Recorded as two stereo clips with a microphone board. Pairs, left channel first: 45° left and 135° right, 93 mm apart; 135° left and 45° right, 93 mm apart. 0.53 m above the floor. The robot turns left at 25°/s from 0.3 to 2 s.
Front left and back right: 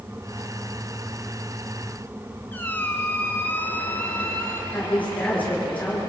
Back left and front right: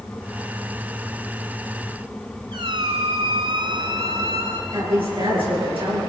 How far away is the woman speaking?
About 10 m.